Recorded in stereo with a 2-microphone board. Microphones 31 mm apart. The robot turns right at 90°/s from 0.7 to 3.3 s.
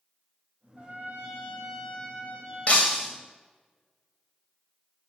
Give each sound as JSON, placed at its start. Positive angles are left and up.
{"t": 0.8, "sound": "a trumpet", "azimuth_deg": -95, "distance_m": 3.0}
{"t": 2.7, "sound": "breaking glass", "azimuth_deg": 125, "distance_m": 2.5}